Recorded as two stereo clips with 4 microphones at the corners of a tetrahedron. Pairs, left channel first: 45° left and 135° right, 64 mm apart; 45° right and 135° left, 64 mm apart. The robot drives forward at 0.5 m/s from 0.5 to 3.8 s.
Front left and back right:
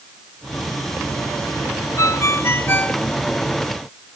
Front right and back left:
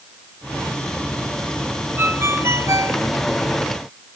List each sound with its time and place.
2.0 s a ringtone: 80° left, 1.1 m; by 3.0 s 105° left, 1.1 m